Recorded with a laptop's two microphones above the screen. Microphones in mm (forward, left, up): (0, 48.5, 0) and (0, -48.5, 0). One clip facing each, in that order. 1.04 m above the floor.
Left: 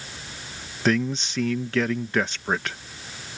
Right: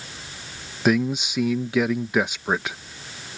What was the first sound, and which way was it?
A man speaking, 10° right (ahead or behind).